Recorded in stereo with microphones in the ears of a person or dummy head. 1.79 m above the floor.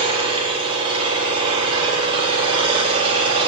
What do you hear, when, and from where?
0.0 s an engine running: 30° right (ahead or behind), 6.5 m